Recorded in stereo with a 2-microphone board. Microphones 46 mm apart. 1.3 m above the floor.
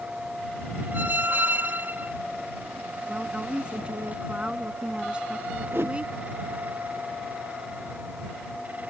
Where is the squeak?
50° right (ahead or behind).